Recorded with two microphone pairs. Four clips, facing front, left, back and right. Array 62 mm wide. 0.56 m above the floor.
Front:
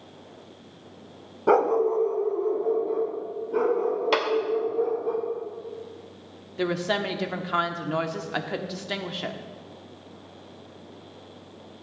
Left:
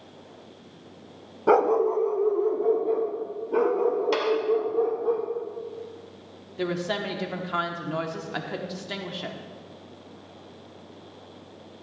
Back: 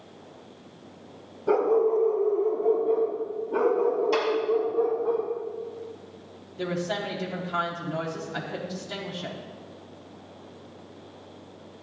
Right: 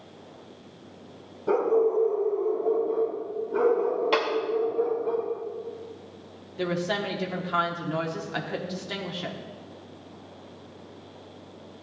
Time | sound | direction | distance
1.5 | a dog barking | 50° left | 0.7 m
4.1 | a clap | 15° right | 1.7 m
6.6 | a woman speaking | straight ahead | 1.0 m